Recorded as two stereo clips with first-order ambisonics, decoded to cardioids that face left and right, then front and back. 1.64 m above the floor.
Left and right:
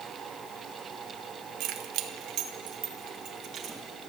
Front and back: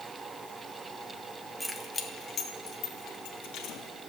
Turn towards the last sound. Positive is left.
turn(degrees=-35)